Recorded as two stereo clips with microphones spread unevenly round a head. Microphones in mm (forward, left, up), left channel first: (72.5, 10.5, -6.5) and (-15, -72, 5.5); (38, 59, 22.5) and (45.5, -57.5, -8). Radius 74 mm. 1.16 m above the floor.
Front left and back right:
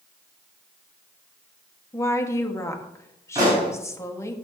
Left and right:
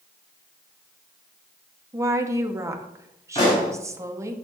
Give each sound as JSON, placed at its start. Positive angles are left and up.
{"t": 1.9, "sound": "a woman speaking", "azimuth_deg": -25, "distance_m": 1.8}
{"t": 3.4, "sound": "a pop", "azimuth_deg": 155, "distance_m": 6.0}